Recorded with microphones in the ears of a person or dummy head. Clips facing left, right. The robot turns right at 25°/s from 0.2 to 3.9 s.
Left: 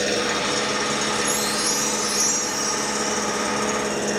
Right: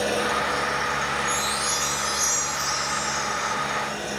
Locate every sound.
0.0 s an engine running: 30° left, 1.7 m; by 4.2 s 125° left, 1.7 m
1.2 s a chime: 95° left, 7 m; by 3.5 s 150° left, 7 m